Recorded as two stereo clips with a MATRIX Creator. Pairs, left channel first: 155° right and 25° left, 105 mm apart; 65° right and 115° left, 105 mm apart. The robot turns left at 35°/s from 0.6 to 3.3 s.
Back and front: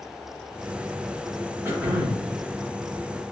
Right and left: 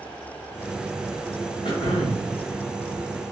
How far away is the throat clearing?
About 1.1 m.